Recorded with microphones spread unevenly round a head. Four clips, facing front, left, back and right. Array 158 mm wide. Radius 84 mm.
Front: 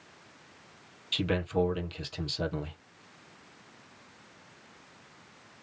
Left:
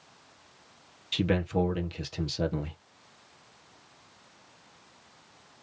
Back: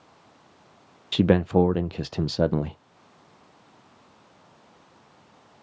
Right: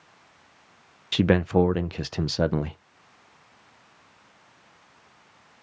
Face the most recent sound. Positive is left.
turn(degrees=-130)